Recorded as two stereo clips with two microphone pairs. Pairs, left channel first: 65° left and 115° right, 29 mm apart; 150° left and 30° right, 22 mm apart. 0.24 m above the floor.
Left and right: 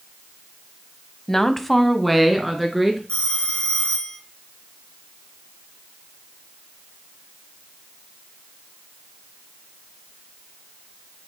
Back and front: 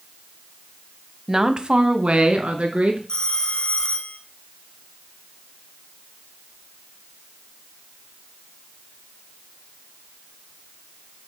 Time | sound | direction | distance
1.3 | a woman speaking | 5° left | 1.0 m
3.1 | a phone ringing | 105° left | 1.6 m